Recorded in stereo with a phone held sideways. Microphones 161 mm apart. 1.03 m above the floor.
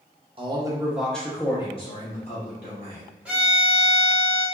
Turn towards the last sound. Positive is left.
turn(degrees=-10)  # may be behind; listen again after turning